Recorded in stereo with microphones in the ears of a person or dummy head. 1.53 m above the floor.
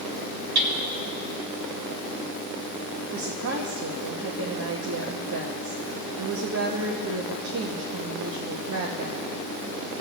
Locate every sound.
0.6 s hammering: 50° right (ahead or behind), 1.1 m
3.1 s a woman speaking: 70° right (ahead or behind), 1.0 m